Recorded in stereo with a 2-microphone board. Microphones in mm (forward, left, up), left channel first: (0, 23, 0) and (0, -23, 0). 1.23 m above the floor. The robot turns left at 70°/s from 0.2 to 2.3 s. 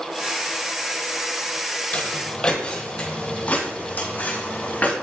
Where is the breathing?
I don't hear breathing.